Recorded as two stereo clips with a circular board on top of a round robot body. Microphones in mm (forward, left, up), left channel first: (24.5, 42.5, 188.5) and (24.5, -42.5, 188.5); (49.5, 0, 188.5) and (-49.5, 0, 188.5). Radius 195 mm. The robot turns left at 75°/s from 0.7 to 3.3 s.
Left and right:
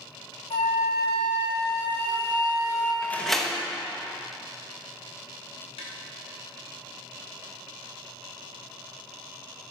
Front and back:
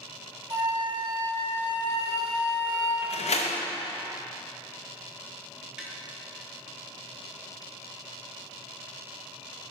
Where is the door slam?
25° left, 0.7 m; by 3.6 s 5° left, 0.7 m.